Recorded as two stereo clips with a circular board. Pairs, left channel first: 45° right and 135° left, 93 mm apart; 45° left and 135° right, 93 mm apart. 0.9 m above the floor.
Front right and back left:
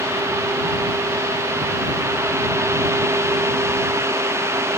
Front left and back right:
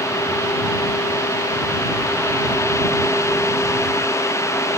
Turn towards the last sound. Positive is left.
No sound to turn to.